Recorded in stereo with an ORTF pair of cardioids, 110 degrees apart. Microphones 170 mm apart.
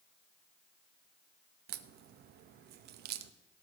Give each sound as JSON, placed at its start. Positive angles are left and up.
{"t": 1.7, "sound": "a crack", "azimuth_deg": -70, "distance_m": 0.8}